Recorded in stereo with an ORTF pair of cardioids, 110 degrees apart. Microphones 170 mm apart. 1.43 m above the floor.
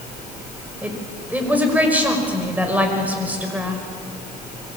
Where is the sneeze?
No sneeze in this recording.